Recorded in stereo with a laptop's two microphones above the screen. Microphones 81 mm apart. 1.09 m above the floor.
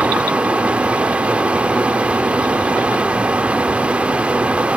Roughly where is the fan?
Centre.